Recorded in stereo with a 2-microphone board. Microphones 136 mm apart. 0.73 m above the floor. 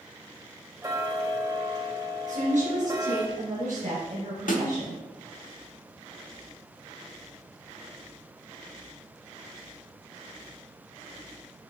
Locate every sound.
0.8 s ticking: 25° right (ahead or behind), 1.3 m
2.3 s a woman speaking: 65° right (ahead or behind), 4 m
4.5 s a snare drum: 75° left (ahead or behind), 1.3 m